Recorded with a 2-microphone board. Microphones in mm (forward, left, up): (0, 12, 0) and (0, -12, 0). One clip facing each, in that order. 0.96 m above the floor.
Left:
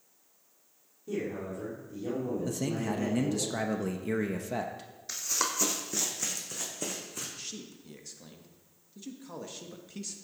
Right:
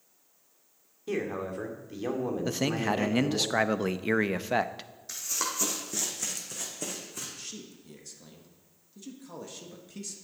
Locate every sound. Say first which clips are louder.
1.1 s a man speaking: right 3 dB; 65° right (ahead or behind), 2 m
2.5 s a man speaking: right 4 dB; 45° right (ahead or behind), 0.6 m
5.1 s running footsteps: left 1 dB; 20° left (ahead or behind), 1.9 m; by 7.3 s centre (ahead or behind), 3.5 m
7.4 s a man speaking: even; 10° left (ahead or behind), 1.2 m